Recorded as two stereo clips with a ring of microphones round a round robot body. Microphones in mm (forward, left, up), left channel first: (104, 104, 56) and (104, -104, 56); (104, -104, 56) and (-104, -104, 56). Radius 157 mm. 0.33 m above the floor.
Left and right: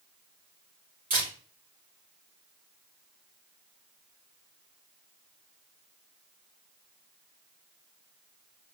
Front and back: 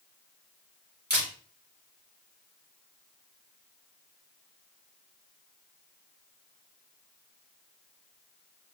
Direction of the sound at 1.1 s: 150° right.